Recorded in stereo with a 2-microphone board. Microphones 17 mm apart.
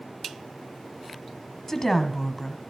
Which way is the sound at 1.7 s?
20° left (ahead or behind).